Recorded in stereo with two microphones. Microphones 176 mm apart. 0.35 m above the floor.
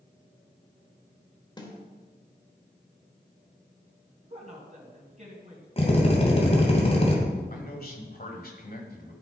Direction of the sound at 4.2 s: 40° right (ahead or behind).